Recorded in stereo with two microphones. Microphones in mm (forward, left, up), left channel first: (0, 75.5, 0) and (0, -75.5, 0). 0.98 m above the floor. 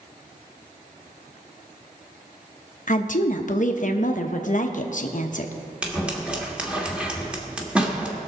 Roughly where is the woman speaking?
Left.